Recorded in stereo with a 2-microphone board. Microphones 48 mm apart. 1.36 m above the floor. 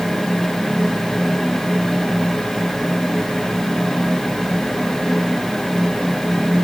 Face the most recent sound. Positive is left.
No sound to turn to.